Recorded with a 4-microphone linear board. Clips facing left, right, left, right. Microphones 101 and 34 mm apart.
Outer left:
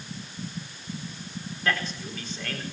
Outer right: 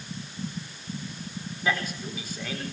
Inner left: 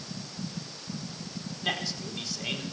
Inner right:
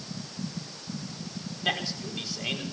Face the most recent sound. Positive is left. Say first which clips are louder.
# outer right 1 dB, inner right 2 dB
turn(degrees=-10)  # may be behind; listen again after turning